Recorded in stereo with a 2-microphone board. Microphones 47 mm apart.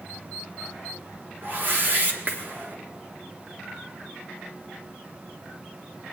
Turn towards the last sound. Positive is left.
turn(degrees=-45)  # may be behind; listen again after turning